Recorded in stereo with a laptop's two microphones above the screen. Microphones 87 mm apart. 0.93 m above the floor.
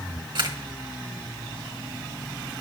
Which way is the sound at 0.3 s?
60° right (ahead or behind).